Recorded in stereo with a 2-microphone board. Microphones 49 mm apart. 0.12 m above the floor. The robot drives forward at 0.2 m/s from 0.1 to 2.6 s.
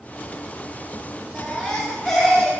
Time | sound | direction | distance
1.3 | a baby crying | 10° left (ahead or behind) | 5.5 m